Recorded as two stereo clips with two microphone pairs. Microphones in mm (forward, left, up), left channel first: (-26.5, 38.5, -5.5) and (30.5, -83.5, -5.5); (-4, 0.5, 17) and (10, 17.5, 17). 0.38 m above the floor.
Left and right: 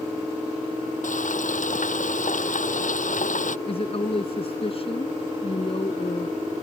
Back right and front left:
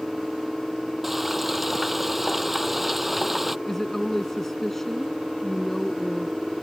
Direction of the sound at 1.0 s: 135° left.